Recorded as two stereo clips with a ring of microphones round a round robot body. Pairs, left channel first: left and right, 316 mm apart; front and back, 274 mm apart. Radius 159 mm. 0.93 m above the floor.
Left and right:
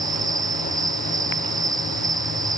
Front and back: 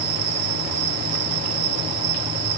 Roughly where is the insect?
Behind.